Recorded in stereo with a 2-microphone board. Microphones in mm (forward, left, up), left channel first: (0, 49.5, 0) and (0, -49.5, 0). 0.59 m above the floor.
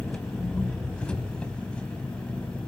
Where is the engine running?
10° left (ahead or behind), 2 m.